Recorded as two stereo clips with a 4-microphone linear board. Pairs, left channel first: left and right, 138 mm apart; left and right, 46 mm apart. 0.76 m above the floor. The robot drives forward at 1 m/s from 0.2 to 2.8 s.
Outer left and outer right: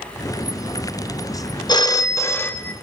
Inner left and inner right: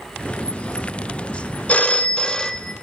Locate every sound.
1.7 s a phone ringing: 30° left (ahead or behind), 0.5 m; by 2.7 s 10° left (ahead or behind), 1.2 m